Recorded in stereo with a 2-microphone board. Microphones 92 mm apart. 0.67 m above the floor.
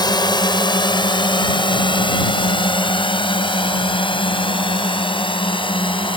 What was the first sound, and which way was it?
A drone, 55° left (ahead or behind).